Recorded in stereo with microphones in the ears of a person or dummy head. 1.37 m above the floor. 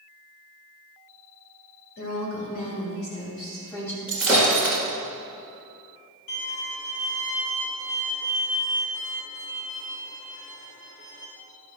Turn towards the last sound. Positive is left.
turn(degrees=55)  # may be behind; listen again after turning